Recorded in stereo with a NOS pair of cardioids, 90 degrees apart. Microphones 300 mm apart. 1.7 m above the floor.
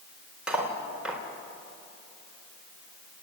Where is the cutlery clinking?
5° right, 4 m.